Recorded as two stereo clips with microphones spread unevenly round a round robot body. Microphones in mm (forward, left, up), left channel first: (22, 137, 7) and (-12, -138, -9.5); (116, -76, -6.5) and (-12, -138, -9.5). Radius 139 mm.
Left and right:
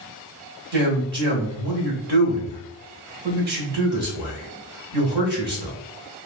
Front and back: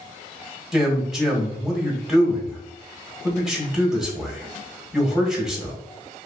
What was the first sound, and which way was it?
A man speaking, 70° right.